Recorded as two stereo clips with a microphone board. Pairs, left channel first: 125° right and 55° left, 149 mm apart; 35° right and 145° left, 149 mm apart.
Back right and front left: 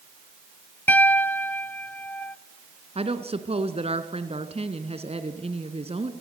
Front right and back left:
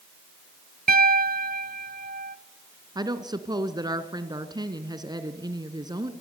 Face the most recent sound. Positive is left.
turn(degrees=90)